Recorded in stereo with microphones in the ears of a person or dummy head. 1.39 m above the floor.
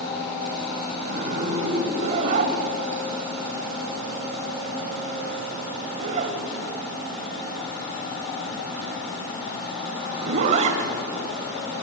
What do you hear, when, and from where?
1.0 s a zipper: 45° right (ahead or behind), 2.5 m